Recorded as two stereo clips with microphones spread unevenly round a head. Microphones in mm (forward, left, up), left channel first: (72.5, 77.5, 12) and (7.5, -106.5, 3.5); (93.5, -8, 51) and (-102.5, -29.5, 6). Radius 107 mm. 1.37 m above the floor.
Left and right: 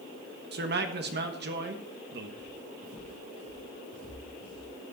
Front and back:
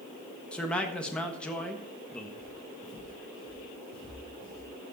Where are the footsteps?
125° right, 6.5 m; by 4.7 s 140° right, 6.5 m.